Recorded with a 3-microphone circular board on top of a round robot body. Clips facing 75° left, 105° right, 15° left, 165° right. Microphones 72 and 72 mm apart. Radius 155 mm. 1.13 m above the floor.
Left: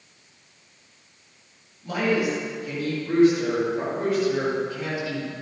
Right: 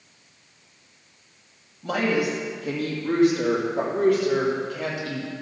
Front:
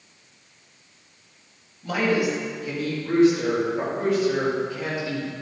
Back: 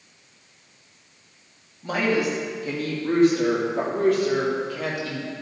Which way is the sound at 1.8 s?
105° right.